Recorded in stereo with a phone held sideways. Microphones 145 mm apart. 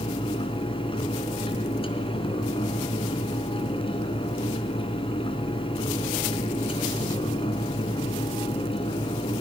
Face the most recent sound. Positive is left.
turn(degrees=35)  # may be behind; listen again after turning